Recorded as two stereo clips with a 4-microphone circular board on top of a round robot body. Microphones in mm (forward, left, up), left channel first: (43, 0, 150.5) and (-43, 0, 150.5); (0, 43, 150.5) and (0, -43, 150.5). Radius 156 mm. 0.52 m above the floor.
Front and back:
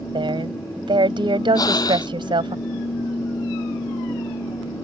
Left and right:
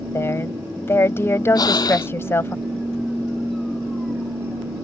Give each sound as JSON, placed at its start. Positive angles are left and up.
{"t": 0.1, "sound": "a woman speaking", "azimuth_deg": 155}
{"t": 1.6, "sound": "breathing", "azimuth_deg": 45}